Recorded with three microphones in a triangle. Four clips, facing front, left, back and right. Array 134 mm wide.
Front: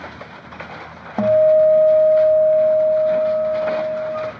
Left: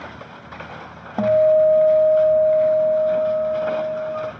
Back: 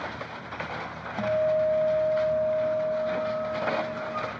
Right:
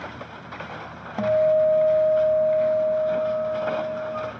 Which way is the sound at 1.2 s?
30° left.